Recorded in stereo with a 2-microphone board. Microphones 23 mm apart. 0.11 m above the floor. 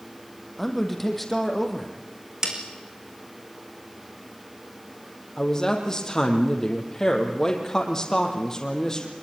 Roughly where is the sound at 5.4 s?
Left.